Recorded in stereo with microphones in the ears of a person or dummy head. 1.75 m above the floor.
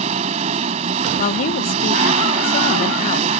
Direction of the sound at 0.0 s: 30° right (ahead or behind).